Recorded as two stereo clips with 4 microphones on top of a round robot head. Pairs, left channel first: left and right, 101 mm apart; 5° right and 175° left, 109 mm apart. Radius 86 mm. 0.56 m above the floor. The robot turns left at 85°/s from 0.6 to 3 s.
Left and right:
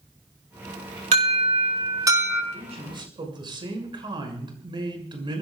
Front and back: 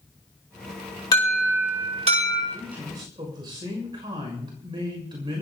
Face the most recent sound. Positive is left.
turn(degrees=-130)